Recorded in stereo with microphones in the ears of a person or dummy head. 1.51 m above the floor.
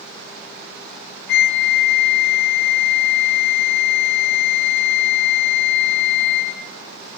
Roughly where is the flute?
Left.